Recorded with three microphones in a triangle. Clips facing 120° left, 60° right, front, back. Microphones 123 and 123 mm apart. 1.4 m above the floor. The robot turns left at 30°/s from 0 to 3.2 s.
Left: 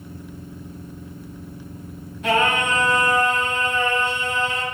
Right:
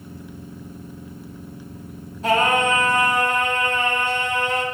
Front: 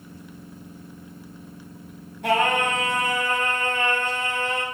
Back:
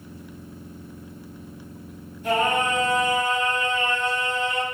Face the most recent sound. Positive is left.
turn(degrees=-35)